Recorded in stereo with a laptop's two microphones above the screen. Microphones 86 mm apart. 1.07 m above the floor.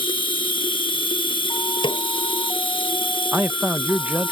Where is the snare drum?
65° left (ahead or behind).